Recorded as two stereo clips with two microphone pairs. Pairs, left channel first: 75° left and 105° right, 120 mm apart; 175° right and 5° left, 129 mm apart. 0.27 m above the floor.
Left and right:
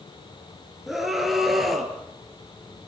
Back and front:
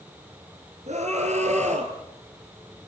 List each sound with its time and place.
0.9 s a scream: 20° right, 4.5 m; by 1.9 s 15° right, 5.5 m